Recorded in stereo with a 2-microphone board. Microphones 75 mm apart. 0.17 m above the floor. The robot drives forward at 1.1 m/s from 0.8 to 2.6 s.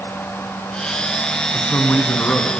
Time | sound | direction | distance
1.5 | a man speaking | 25° left (ahead or behind) | 1.2 m